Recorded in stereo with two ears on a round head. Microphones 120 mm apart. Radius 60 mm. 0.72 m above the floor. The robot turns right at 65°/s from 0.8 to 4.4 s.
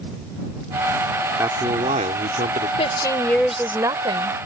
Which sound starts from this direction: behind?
A man speaking, at 1.4 s.